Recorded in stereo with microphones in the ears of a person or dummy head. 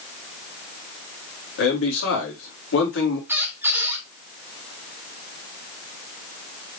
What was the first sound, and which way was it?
A man speaking, 75° left (ahead or behind).